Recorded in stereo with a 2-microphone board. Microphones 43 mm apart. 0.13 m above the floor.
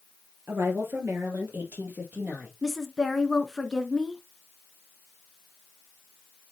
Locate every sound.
0.5 s a woman speaking: 60° right (ahead or behind), 3 m; by 2.5 s 45° right (ahead or behind), 4.5 m
2.6 s a woman speaking: 10° left (ahead or behind), 1.2 m